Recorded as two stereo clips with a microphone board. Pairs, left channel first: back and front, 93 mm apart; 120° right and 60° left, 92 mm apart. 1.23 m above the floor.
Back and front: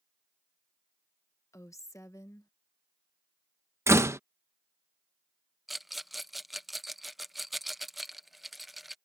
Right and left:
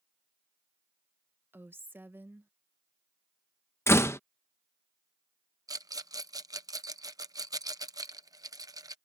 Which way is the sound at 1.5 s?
125° left.